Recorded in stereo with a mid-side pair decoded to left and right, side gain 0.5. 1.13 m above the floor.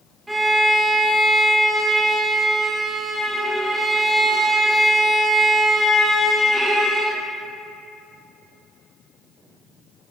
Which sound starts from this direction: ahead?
A violin, at 0.3 s.